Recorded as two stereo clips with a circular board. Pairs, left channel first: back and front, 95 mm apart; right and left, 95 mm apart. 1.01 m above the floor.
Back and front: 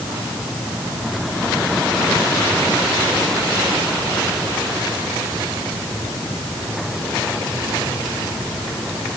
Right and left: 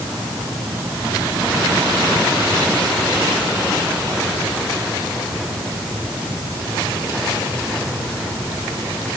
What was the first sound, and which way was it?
Only background noise.